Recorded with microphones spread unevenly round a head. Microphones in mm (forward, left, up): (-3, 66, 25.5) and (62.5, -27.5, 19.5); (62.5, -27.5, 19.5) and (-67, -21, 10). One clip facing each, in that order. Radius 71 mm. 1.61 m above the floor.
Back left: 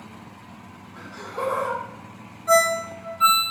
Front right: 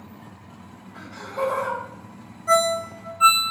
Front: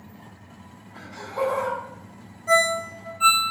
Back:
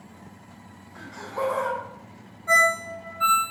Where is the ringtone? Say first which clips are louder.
Back left 1 dB, front 2 dB; 30° left, 0.7 m.